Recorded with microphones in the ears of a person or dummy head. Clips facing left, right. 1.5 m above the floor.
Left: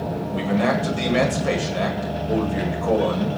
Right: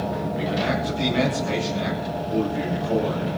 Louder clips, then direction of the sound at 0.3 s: Left 6 dB; 65° left (ahead or behind).